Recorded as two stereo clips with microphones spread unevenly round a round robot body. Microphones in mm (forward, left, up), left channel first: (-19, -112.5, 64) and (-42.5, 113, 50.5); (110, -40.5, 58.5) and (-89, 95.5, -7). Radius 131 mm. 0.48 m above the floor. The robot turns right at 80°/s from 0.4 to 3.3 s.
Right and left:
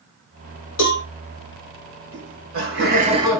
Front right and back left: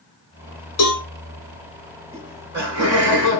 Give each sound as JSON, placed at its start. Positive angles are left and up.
{"t": 0.8, "sound": "a cowbell", "azimuth_deg": -65, "distance_m": 3.5}
{"t": 2.1, "sound": "laughter", "azimuth_deg": 80, "distance_m": 4.0}